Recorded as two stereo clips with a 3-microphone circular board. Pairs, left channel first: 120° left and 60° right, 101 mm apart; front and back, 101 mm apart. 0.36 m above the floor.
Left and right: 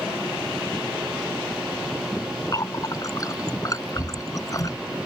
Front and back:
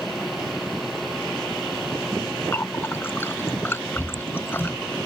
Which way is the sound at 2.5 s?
65° left.